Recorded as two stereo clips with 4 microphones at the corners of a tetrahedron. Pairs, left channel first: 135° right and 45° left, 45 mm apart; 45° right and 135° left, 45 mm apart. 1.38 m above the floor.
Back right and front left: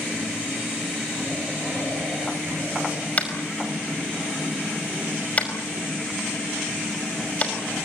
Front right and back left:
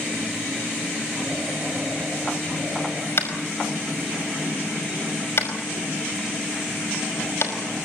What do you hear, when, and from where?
3.2 s tapping: 75° right, 5 m